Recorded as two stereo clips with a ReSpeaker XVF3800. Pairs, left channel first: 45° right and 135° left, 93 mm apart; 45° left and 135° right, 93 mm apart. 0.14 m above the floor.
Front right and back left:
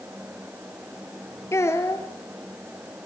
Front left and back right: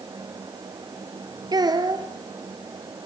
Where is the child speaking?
100° right, 2.0 m.